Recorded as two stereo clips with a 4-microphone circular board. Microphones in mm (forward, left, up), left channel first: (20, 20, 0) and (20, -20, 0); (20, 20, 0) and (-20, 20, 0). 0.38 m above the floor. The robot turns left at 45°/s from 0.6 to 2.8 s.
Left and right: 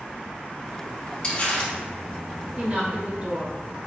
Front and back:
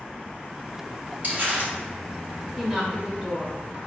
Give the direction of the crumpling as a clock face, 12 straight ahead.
7 o'clock.